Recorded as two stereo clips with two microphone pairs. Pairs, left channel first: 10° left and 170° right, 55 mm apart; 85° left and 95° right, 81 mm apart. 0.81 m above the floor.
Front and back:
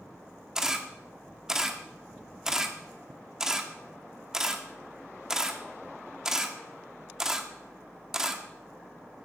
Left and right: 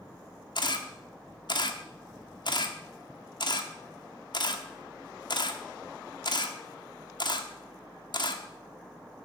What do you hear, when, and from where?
0.6 s a camera shutter: 110° left, 1.4 m